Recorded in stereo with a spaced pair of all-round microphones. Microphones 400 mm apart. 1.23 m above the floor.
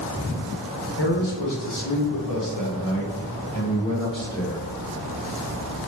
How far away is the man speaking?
About 1.3 m.